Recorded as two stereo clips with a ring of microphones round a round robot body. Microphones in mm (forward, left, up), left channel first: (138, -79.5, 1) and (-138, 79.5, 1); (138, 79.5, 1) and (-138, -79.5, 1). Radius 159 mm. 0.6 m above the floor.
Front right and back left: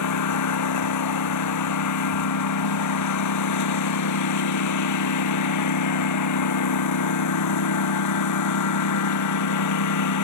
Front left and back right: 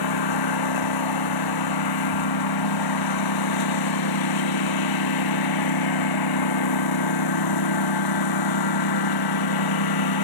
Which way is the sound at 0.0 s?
10° left.